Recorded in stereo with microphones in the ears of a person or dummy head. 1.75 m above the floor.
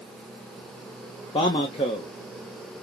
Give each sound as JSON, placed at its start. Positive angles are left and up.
{"t": 1.3, "sound": "a man speaking", "side_deg": 30, "distance_m": 0.8}